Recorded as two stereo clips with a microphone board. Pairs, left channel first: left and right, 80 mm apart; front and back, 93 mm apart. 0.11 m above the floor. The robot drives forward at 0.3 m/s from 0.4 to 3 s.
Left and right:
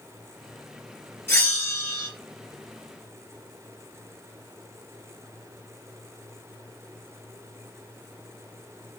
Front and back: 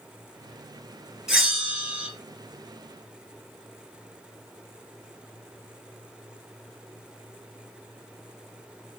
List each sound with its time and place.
1.3 s a bell: 105° left, 1.8 m; by 2.1 s 120° left, 1.9 m